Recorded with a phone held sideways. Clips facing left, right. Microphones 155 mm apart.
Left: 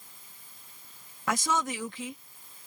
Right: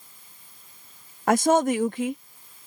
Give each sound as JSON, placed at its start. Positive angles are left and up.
{"t": 1.3, "sound": "a woman speaking", "side_deg": -55}